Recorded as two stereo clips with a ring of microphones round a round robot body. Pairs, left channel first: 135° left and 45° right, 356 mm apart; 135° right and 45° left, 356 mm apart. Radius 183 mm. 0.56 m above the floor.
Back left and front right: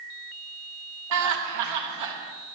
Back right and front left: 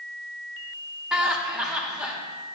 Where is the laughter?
40° right, 1.0 m.